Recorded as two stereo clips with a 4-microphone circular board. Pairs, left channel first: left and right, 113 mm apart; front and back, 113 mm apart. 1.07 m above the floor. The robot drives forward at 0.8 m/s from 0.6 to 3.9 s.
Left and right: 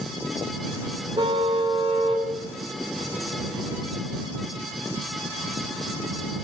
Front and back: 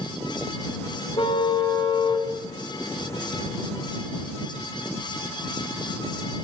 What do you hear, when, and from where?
1.2 s a car horn: 45° right, 4.5 m; by 2.3 s 55° right, 4 m